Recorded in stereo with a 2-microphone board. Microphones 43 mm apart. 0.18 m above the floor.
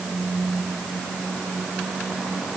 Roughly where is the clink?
I don't hear a clink.